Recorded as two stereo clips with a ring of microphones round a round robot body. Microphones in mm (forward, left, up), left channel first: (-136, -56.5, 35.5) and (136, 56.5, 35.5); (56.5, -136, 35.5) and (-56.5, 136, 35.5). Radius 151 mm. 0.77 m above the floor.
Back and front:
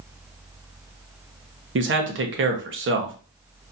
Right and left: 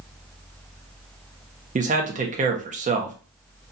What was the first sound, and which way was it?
A man speaking, 55° left.